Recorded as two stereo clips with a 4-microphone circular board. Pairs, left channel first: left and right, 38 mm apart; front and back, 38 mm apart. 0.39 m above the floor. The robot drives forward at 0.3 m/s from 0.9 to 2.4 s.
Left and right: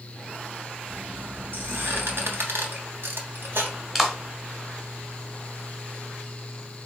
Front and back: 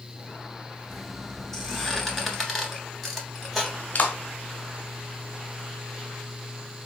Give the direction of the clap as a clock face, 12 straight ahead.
12 o'clock.